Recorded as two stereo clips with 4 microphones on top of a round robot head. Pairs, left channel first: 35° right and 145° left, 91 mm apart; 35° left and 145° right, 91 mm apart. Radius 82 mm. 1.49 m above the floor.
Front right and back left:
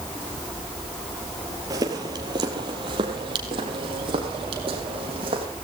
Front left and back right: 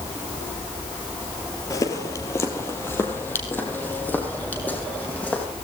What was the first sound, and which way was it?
Footsteps, 90° left.